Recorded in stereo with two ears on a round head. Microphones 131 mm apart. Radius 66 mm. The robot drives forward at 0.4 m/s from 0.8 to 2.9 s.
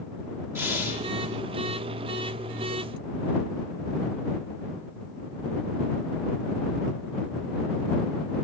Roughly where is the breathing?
Centre.